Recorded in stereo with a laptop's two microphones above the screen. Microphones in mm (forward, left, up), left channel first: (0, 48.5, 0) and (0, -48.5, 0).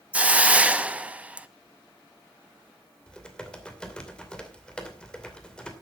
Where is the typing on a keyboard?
10° left (ahead or behind), 2.5 m.